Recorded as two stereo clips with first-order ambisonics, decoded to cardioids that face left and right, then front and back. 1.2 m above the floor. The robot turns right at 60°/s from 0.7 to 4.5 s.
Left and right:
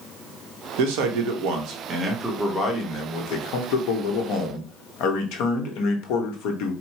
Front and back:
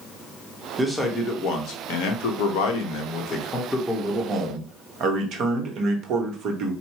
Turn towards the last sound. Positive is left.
turn(degrees=125)